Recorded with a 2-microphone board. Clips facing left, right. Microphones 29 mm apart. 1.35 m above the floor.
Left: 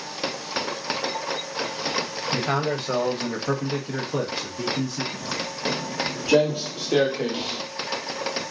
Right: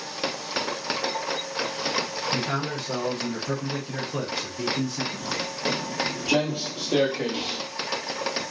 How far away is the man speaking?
About 1.0 m.